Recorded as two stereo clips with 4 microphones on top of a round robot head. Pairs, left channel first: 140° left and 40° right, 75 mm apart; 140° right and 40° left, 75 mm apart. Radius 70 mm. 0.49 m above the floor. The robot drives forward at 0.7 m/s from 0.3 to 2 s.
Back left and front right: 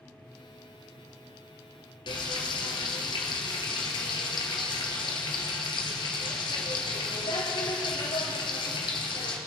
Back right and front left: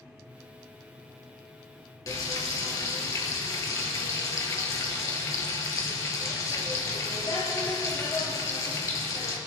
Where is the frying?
170° left, 1.8 m.